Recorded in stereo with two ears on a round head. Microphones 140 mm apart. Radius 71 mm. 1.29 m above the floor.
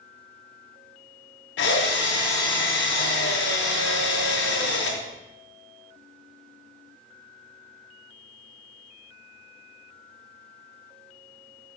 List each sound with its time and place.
1.6 s a drill: 75° left (ahead or behind), 1.5 m